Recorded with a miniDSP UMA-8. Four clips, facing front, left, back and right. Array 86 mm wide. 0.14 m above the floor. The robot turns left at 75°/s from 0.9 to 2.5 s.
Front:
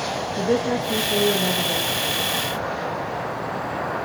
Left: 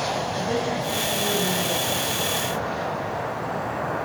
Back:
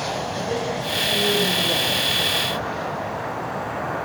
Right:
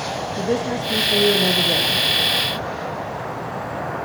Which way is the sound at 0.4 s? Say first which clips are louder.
Right 3 dB, front 8 dB; 40° right.